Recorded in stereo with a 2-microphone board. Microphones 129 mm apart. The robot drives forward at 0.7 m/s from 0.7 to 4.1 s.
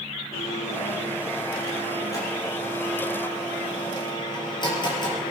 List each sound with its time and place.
0.3 s a blender: 25° left (ahead or behind), 7 m; by 5.3 s 35° left (ahead or behind), 4.5 m